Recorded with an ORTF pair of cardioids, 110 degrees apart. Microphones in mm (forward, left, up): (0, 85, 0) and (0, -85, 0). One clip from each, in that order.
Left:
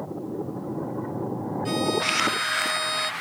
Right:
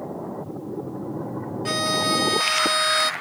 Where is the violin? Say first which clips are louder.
Right 3 dB; 40° right.